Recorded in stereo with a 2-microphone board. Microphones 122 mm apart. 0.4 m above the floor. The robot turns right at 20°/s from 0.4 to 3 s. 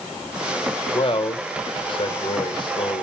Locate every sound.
0.9 s a man speaking: 40° left (ahead or behind), 1.7 m; by 3.0 s 35° left (ahead or behind), 1.7 m